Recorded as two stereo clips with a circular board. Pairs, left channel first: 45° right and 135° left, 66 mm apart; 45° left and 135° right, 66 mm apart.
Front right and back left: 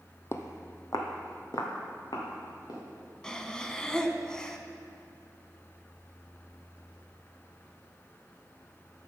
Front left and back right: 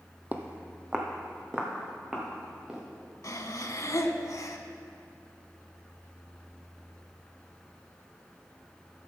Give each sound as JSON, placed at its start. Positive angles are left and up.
{"t": 0.3, "sound": "footsteps", "azimuth_deg": -75, "distance_m": 0.8}
{"t": 3.2, "sound": "breathing", "azimuth_deg": 35, "distance_m": 0.6}